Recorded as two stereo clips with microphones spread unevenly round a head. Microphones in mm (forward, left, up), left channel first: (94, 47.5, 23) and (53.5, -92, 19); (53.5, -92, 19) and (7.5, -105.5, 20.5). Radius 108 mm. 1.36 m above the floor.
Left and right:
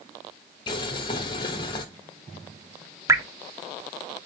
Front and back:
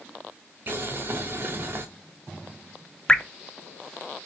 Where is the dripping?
45° right, 0.5 m.